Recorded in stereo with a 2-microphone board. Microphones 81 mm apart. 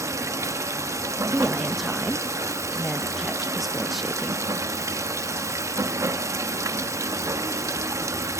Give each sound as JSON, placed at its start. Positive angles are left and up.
{"t": 0.0, "sound": "running water", "side_deg": -35, "distance_m": 0.7}
{"t": 1.2, "sound": "a woman speaking", "side_deg": 0, "distance_m": 0.5}